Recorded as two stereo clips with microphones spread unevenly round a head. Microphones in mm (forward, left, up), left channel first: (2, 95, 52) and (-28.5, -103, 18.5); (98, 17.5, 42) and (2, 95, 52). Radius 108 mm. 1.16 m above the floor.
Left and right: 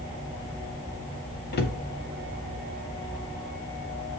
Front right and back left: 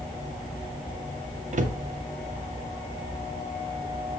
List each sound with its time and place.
1.5 s a cupboard door: 125° left, 1.4 m